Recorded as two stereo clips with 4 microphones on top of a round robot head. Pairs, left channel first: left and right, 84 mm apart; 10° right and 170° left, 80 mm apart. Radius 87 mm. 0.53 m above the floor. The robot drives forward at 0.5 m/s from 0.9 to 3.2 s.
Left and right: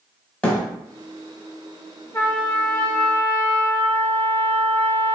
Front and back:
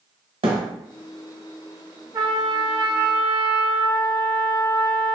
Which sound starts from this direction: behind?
A thud, at 0.4 s.